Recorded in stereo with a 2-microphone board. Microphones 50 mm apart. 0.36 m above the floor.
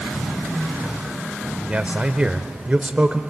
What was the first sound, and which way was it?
A man speaking, 25° right (ahead or behind).